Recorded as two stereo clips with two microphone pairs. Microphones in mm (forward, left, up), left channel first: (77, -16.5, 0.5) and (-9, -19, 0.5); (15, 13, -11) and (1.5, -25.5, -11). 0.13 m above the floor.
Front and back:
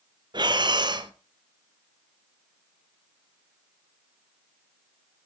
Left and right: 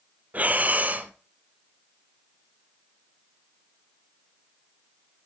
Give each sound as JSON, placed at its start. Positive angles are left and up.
{"t": 0.3, "sound": "breathing", "azimuth_deg": -150, "distance_m": 0.8}